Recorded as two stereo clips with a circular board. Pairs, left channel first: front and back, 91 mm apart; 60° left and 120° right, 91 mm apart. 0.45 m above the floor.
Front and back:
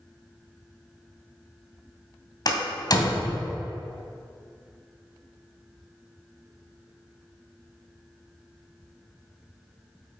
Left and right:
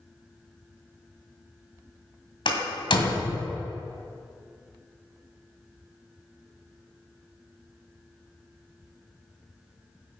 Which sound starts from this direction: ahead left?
A door slam, at 2.5 s.